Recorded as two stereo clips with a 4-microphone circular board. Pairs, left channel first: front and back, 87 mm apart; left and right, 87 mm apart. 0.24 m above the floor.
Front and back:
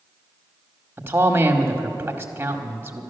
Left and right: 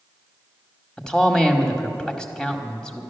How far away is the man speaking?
About 1.1 m.